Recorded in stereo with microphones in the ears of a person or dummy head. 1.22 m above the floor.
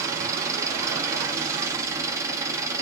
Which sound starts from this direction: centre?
An engine running, at 0.0 s.